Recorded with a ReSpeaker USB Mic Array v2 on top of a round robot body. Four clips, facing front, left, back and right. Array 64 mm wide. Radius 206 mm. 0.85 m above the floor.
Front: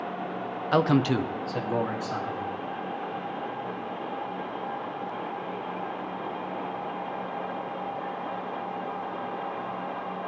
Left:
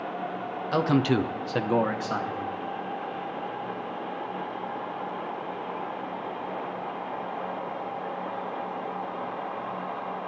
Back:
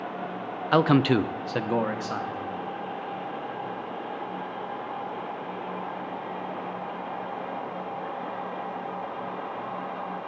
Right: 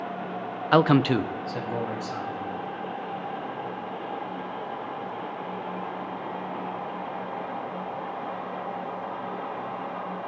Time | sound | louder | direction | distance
0.7 | a man speaking | right 4 dB, back 2 dB | 110° right | 0.8 m